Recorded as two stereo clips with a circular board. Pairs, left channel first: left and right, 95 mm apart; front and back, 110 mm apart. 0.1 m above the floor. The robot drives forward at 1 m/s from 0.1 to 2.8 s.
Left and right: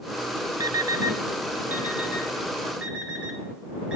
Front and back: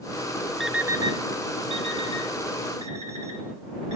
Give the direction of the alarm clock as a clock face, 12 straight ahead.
3 o'clock.